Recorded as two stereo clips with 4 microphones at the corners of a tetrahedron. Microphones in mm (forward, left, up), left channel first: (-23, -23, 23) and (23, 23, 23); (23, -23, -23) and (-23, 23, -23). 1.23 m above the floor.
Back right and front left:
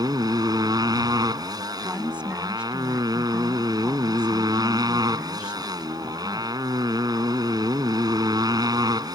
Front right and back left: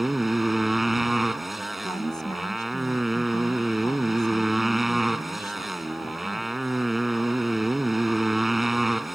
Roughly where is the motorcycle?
Ahead left.